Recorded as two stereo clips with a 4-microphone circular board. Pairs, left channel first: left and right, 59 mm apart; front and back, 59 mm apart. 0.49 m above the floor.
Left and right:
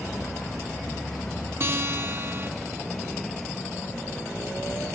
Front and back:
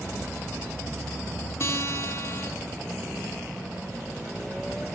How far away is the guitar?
About 3 m.